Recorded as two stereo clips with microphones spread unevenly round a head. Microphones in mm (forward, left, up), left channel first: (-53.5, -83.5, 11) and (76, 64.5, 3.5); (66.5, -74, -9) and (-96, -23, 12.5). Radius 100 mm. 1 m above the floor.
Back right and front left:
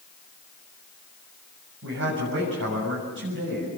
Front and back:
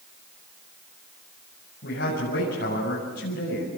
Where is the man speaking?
20° left, 7 m.